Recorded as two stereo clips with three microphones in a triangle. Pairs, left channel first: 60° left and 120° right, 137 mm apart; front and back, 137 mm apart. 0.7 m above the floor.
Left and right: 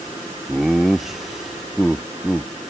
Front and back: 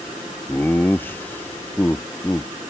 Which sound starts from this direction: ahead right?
Laughter, at 0.5 s.